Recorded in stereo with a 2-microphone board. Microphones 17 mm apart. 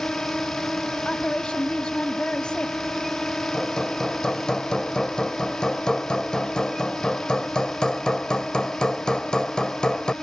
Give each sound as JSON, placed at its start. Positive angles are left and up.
{"t": 0.0, "sound": "a drone", "side_deg": 60}
{"t": 1.1, "sound": "a woman speaking", "side_deg": 90}
{"t": 3.5, "sound": "hammering", "side_deg": 60}